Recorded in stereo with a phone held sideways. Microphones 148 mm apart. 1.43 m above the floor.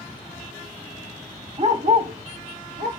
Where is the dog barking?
45° right (ahead or behind), 1.4 m; by 2.9 s 65° right (ahead or behind), 2.5 m.